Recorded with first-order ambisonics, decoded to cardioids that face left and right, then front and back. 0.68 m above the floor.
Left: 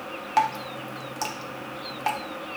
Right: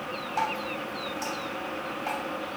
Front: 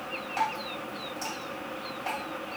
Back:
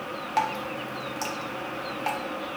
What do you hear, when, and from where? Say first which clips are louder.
0.4 s dripping: left 6 dB, back 4 dB; 115° left, 0.6 m